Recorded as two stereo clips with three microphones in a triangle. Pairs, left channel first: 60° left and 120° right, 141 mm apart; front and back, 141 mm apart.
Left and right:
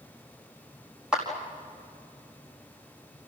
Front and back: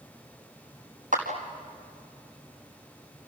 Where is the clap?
155° left, 4.5 m.